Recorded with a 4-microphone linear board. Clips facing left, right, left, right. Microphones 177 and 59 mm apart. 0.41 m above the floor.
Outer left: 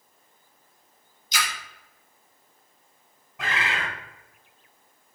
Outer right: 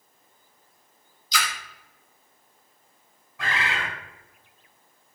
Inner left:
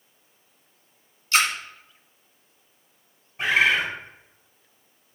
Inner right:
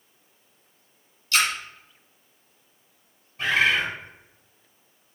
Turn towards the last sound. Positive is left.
turn(degrees=20)  # may be behind; listen again after turning